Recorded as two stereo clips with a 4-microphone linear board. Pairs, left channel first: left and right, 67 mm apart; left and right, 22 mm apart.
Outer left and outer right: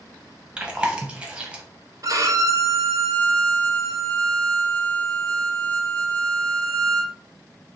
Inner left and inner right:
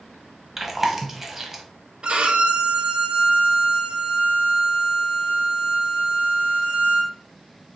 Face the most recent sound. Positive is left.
turn(degrees=-55)  # may be behind; listen again after turning